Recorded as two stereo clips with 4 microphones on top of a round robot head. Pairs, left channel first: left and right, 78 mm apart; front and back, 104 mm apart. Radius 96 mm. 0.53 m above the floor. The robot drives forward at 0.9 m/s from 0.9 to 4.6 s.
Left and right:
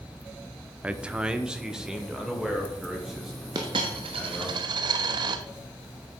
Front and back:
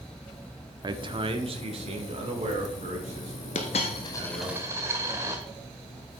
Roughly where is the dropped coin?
Ahead right.